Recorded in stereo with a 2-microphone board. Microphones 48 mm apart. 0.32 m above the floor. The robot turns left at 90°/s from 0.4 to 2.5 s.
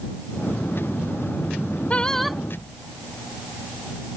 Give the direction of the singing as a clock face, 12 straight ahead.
11 o'clock.